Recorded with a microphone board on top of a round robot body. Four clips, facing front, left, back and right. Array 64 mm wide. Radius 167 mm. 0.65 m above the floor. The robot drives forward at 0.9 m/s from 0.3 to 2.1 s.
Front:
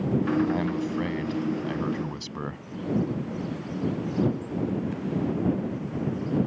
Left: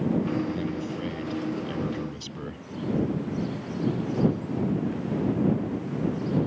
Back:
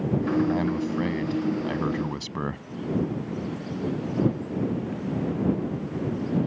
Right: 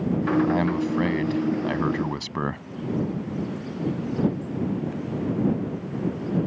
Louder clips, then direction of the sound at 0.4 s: Right 7 dB, back 1 dB; 85° right.